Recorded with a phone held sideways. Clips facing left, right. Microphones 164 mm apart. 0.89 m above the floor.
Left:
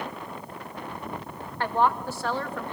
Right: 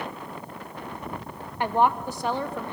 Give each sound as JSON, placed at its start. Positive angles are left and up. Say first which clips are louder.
{"t": 1.6, "sound": "a woman speaking", "louder": "right 2 dB", "side_deg": -15, "distance_m": 0.8}